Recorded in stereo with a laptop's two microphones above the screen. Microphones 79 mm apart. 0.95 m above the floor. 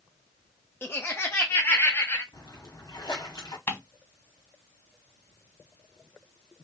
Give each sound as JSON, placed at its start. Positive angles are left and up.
{"t": 0.8, "sound": "laughter", "side_deg": 30, "distance_m": 0.6}
{"t": 2.3, "sound": "a splash", "side_deg": 55, "distance_m": 1.2}
{"t": 3.7, "sound": "ticking", "side_deg": 30, "distance_m": 1.6}